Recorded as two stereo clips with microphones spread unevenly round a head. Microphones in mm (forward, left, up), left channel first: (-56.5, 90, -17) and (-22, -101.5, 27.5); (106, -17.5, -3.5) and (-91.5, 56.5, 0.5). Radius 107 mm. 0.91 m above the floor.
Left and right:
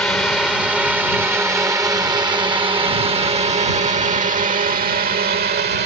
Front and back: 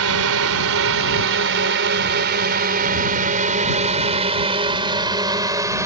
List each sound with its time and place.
0.0 s a drone: 175° right; by 5.9 s 125° right